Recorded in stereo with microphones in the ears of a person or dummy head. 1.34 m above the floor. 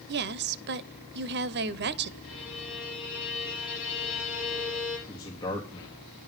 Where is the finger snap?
No finger snap in this recording.